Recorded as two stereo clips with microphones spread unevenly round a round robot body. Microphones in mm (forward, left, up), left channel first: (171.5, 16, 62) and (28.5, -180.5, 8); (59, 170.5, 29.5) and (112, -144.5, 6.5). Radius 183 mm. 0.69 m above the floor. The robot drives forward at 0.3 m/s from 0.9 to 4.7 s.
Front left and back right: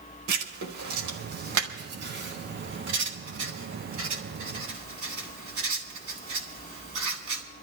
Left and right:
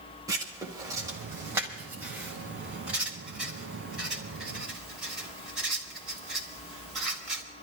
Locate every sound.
0.3 s writing: 160° right, 1.2 m; by 7.4 s 170° right, 2.5 m